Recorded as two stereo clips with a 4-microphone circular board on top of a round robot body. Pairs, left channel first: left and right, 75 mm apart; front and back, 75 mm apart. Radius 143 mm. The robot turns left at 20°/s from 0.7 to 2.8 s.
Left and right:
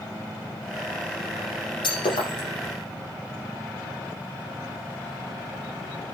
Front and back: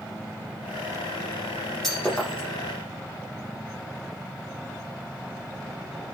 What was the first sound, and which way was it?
Breaking glass, 85° left.